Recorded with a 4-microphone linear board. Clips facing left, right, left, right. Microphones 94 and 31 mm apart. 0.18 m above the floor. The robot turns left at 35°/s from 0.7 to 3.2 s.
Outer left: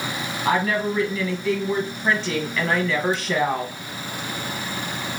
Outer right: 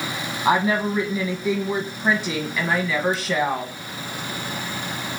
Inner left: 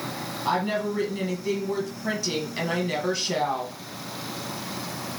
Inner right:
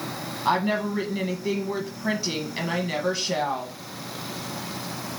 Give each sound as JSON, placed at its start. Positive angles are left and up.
{"t": 0.5, "sound": "a woman speaking", "side_deg": -20, "distance_m": 1.2}